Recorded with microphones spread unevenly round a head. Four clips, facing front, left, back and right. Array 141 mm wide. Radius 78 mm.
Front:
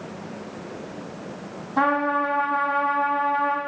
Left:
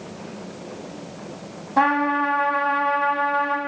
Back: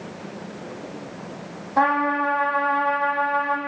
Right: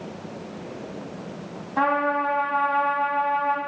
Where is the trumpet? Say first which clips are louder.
Left 3 dB, back 1 dB; 130° left, 1.2 m.